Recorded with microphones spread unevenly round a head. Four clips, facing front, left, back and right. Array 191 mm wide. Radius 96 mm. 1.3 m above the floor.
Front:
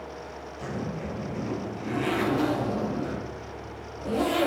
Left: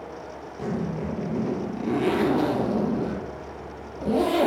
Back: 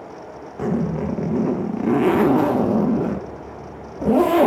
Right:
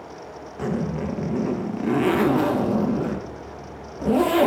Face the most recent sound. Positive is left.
turn(degrees=-170)